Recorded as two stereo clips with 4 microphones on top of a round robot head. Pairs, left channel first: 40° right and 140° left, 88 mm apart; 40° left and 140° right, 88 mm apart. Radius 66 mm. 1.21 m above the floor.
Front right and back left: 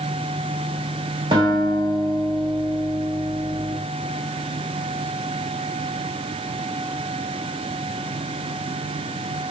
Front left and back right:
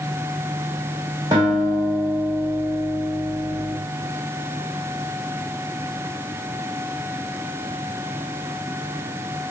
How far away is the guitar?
About 0.9 m.